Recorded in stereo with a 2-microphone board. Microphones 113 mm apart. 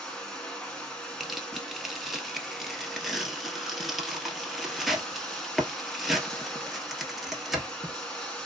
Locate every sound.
0.0 s running water: 5° left (ahead or behind), 1.3 m
1.2 s tearing paper: centre (ahead or behind), 1.1 m